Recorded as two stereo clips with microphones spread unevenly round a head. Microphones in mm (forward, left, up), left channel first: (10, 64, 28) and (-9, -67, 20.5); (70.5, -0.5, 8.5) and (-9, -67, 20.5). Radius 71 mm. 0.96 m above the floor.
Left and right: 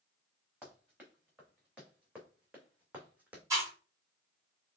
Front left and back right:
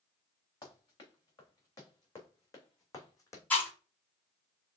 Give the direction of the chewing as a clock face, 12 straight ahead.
1 o'clock.